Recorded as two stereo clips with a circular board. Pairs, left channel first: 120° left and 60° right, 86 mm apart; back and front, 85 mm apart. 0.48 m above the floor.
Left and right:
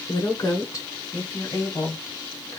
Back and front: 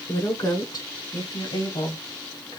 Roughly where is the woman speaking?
Behind left.